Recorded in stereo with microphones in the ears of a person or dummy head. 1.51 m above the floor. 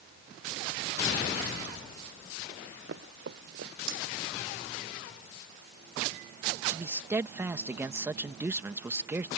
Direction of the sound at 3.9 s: 75° right (ahead or behind).